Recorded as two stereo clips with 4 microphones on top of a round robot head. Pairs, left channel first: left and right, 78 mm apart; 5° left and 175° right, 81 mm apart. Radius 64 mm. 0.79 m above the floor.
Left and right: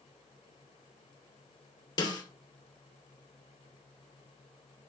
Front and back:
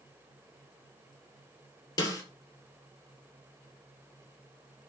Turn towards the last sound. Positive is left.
turn(degrees=50)